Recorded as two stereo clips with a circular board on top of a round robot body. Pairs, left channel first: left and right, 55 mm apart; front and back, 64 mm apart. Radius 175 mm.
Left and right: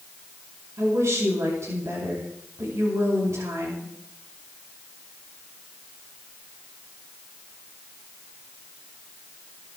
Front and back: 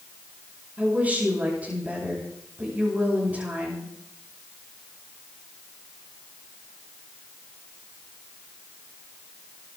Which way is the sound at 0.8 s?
115° right.